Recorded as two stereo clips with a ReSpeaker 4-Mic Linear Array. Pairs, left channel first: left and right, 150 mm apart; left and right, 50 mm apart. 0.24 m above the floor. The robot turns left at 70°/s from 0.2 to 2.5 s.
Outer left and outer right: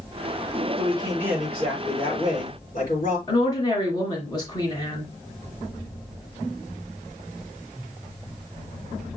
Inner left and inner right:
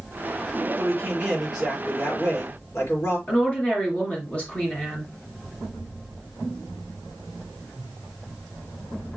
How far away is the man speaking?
About 4.5 m.